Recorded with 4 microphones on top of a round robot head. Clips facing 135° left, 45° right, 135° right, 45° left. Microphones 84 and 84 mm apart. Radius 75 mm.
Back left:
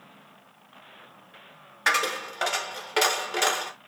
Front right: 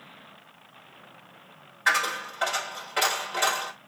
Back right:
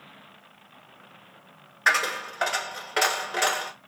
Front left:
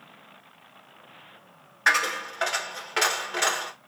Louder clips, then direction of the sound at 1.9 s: Even, even; 140° left.